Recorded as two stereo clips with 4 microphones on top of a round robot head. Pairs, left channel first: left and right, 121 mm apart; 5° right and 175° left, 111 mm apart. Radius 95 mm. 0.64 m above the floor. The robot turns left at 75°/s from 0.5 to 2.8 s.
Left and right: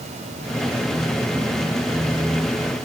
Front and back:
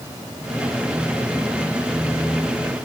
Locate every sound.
Only background noise.